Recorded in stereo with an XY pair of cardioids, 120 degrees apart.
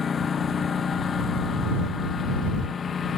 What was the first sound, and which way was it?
A lawn mower, 35° left.